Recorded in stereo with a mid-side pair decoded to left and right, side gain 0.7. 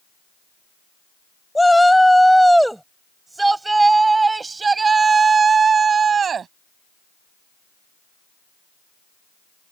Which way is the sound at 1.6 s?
5° left.